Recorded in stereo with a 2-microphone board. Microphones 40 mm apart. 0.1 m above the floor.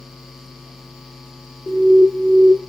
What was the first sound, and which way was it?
An alarm, 25° left (ahead or behind).